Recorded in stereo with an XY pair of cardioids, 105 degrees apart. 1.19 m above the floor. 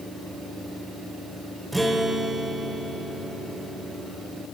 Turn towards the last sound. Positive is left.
turn(degrees=-10)